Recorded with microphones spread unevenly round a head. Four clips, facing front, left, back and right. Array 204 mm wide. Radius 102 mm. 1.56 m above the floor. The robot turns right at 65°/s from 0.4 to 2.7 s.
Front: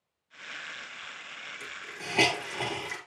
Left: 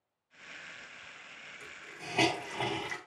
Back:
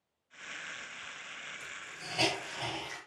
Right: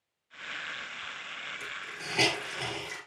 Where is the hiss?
25° right, 5 m; by 3.0 s 45° left, 5 m.